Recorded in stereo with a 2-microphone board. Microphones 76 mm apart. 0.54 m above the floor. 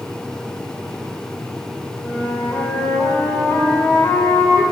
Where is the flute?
35° left (ahead or behind), 0.9 m.